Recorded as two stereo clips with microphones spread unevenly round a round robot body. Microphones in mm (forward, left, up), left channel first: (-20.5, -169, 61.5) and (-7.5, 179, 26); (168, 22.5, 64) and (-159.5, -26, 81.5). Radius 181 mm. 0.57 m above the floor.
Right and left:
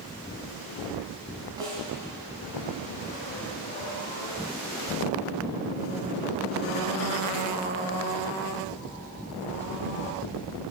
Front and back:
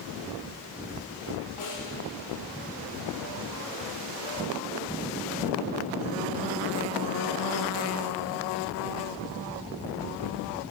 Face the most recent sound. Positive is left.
turn(degrees=10)